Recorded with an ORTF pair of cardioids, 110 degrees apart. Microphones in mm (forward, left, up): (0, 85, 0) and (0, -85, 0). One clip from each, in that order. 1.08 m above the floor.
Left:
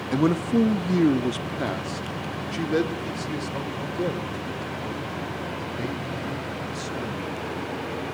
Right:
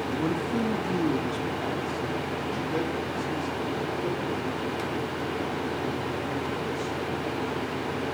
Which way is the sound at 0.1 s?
45° left.